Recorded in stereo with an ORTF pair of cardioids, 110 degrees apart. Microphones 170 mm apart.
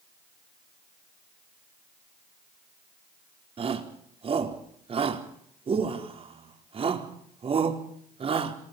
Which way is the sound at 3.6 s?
35° right.